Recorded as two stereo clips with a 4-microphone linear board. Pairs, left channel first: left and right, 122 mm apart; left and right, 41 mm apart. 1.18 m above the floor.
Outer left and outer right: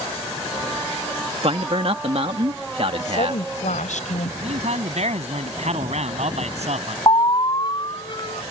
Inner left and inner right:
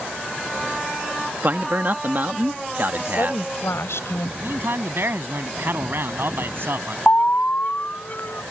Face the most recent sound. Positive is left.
turn(degrees=40)  # may be behind; listen again after turning